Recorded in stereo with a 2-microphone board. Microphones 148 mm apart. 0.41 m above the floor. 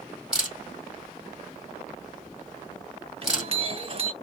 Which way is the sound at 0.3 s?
5° right (ahead or behind).